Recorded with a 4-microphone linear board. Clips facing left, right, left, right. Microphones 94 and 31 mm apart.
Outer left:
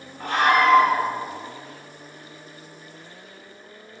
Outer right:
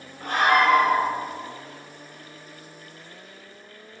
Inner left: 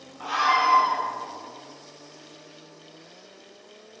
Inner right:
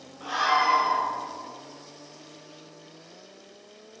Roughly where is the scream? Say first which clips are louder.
Outer left 1 dB, inner left 2 dB; left.